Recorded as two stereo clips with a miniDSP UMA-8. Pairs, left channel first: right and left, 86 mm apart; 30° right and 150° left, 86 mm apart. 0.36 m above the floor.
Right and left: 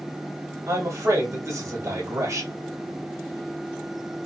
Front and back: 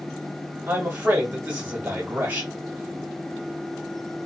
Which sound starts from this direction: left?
A man speaking, at 0.7 s.